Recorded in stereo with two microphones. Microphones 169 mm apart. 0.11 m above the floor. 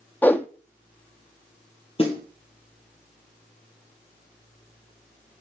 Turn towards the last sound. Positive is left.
turn(degrees=35)  # may be behind; listen again after turning